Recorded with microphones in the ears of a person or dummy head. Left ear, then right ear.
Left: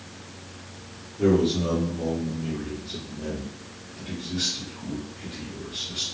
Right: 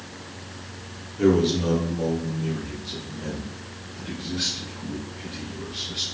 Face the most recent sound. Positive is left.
turn(degrees=0)  # may be behind; listen again after turning